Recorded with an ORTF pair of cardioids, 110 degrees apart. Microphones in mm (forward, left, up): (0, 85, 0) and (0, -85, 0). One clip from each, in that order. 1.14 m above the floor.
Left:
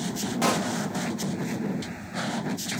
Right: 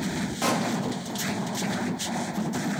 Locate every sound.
0.4 s a pop: 15° left, 2.5 m